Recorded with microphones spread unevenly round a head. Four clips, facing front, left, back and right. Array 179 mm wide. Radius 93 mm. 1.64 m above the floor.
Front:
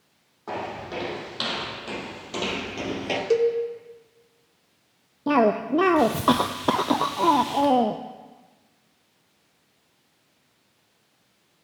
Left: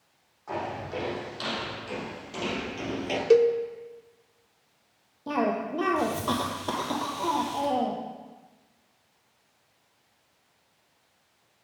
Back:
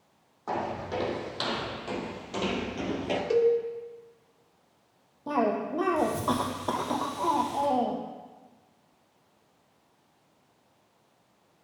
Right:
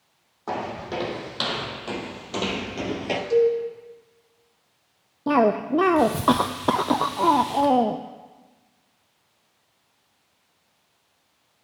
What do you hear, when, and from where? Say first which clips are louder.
0.5 s footsteps: right 3 dB, even; 70° right, 4 m; by 3.2 s 45° right, 2 m
3.3 s a cowbell: even, front 2 dB; 65° left, 1.0 m
5.3 s a cough: right 8 dB, front 7 dB; 40° right, 0.6 m